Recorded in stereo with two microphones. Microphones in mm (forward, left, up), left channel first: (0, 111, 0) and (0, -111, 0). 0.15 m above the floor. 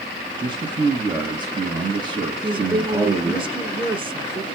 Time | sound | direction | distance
0.4 | a man speaking | 20° right (ahead or behind) | 2 m
2.4 | a woman speaking | 25° right (ahead or behind) | 1.4 m